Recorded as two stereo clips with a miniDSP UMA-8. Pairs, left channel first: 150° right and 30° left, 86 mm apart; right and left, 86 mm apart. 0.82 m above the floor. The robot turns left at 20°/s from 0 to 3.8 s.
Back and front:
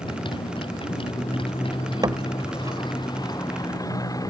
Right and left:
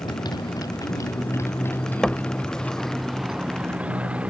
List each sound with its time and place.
0.0 s a motorcycle: 125° right; by 4.3 s 165° left
2.0 s a door slam: 10° right; by 4.3 s 45° right